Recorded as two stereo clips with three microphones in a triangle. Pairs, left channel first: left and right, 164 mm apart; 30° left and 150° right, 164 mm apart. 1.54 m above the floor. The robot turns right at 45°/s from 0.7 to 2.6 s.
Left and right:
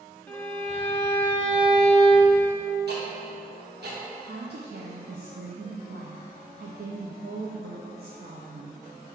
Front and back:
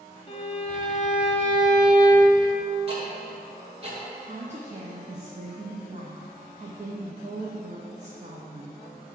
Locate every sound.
0.3 s a violin: 30° left, 1.2 m; by 2.4 s 105° left, 1.2 m
2.9 s ticking: 95° right, 1.8 m
4.2 s a woman speaking: 100° right, 0.8 m